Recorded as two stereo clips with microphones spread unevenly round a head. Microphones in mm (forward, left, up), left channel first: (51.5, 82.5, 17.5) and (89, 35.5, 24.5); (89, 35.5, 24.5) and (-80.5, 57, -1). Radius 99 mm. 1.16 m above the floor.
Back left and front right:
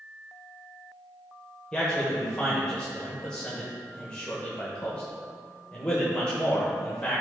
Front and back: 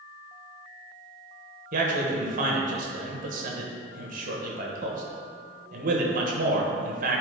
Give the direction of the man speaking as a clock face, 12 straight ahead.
5 o'clock.